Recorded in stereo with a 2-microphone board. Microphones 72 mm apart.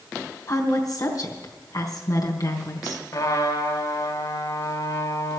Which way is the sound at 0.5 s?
55° left (ahead or behind).